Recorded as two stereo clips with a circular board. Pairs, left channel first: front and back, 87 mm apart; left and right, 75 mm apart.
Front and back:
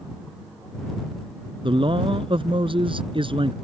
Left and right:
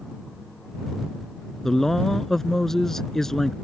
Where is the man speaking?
175° left.